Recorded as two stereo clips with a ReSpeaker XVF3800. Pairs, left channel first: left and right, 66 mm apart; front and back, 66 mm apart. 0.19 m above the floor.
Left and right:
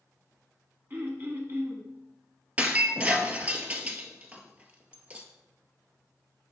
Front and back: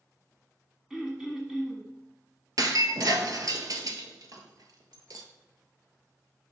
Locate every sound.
0.9 s throat clearing: 100° right, 1.4 m
2.6 s breaking glass: 155° right, 0.9 m